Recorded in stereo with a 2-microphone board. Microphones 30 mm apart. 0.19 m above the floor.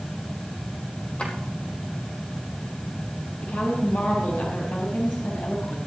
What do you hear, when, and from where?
1.2 s a drawer: 40° left (ahead or behind), 3.5 m
3.4 s a woman speaking: 75° left (ahead or behind), 6 m